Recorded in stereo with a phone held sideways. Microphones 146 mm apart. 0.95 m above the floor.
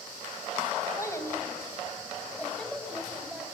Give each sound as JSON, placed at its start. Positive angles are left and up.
{"t": 1.0, "sound": "a child speaking", "side_deg": 20, "distance_m": 4.0}